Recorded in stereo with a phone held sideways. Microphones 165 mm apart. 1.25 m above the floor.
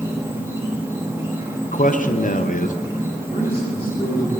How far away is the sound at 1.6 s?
About 0.6 m.